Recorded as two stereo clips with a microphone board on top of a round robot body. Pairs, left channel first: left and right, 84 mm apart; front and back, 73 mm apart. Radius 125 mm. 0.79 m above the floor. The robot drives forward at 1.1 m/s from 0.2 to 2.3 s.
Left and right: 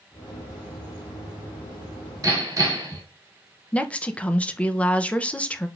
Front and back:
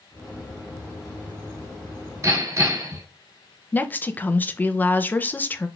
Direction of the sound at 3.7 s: 30° left.